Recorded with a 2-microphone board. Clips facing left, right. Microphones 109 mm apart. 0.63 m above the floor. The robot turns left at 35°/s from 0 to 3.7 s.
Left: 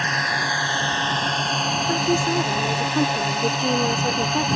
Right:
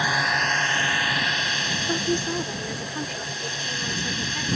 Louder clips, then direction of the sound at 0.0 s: Even; 170° right.